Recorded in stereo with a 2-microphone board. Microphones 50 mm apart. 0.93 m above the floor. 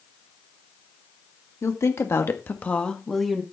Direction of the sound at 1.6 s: 70° left (ahead or behind).